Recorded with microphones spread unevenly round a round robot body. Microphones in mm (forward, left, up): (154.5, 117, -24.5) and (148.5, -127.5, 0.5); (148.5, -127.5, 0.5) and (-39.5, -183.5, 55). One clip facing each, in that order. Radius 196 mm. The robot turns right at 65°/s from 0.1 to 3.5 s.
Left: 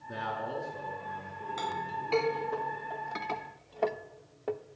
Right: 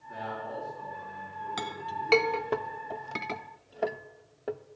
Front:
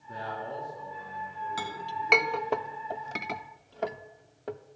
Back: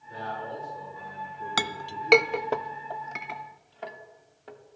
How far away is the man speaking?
About 6.5 m.